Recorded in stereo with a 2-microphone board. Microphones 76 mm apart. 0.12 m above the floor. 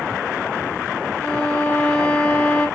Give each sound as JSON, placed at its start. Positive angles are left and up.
{"t": 1.2, "sound": "a violin", "side_deg": 20, "distance_m": 1.7}